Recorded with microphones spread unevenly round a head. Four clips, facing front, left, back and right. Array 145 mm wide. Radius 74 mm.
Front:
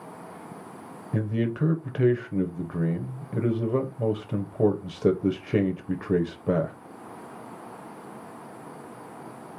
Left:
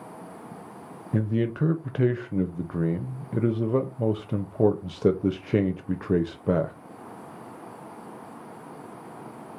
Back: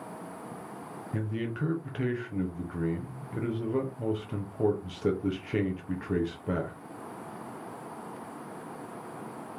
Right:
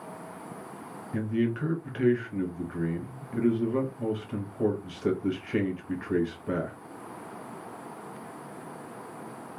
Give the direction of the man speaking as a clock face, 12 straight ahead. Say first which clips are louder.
Left 2 dB, front 7 dB; 10 o'clock.